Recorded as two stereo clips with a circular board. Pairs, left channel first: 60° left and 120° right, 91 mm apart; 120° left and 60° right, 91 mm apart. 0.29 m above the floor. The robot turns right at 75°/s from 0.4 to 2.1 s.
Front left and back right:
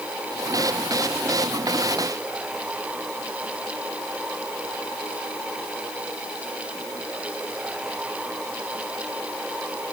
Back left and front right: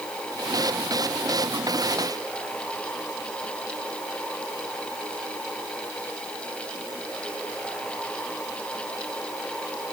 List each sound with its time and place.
Only background noise.